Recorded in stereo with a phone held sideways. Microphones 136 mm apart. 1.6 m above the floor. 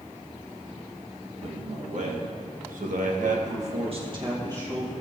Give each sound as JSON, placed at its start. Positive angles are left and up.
{"t": 1.4, "sound": "a man speaking", "side_deg": -55, "distance_m": 3.0}